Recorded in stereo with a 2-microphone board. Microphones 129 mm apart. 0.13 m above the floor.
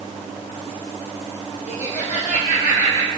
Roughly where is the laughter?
Left.